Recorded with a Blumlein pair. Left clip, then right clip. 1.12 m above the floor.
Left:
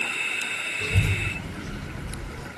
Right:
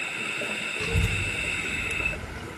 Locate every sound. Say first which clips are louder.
0.8 s a child speaking: left 1 dB; 10° right, 0.7 m; by 2.5 s 65° left, 2 m